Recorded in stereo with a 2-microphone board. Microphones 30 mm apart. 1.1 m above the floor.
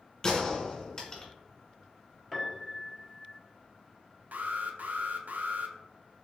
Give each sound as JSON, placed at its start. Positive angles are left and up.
{"t": 0.2, "sound": "a gunshot", "side_deg": 20, "distance_m": 1.6}
{"t": 2.3, "sound": "a piano", "side_deg": 0, "distance_m": 1.0}
{"t": 4.3, "sound": "an alarm", "side_deg": -75, "distance_m": 0.5}